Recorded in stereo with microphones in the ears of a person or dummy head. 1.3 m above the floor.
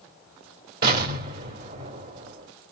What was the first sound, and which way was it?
An explosion, 50° right (ahead or behind).